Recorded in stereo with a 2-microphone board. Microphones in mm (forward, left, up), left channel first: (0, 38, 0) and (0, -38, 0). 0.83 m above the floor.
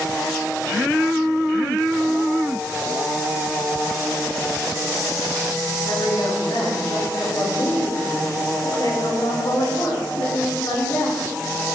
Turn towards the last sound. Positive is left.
turn(degrees=80)